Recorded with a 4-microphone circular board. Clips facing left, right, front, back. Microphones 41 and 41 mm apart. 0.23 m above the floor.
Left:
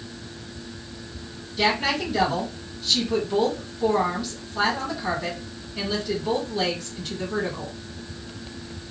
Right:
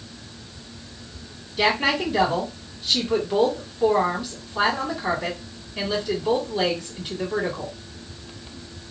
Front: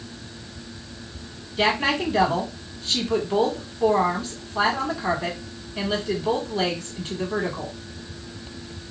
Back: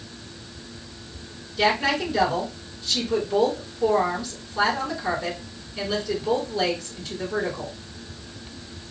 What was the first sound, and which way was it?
A woman speaking, 25° right.